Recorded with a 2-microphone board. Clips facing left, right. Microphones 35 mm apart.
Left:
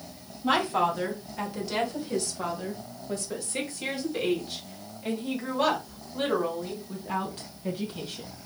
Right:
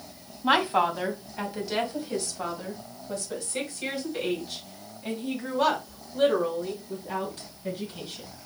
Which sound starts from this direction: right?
A woman speaking, at 0.4 s.